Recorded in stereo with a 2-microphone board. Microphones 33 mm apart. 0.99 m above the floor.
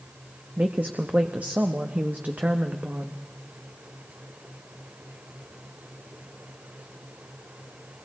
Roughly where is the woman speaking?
Right.